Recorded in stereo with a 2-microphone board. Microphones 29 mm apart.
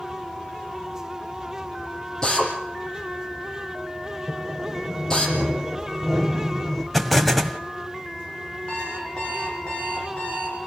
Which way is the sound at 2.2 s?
25° left (ahead or behind).